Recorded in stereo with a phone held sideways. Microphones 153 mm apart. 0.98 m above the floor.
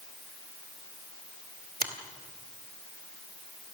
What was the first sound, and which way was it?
A finger snap, 70° right (ahead or behind).